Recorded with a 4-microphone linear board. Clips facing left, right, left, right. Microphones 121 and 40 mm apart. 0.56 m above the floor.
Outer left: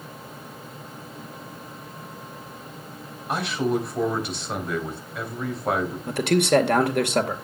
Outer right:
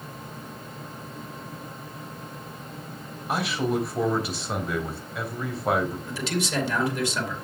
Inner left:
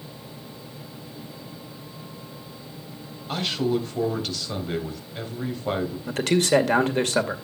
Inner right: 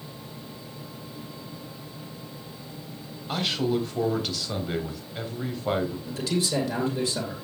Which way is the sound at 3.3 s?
Centre (ahead or behind).